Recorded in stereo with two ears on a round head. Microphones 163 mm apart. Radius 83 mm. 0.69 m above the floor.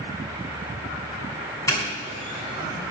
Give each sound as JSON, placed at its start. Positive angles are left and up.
{"t": 1.7, "sound": "a doorbell", "side_deg": 15, "distance_m": 8.0}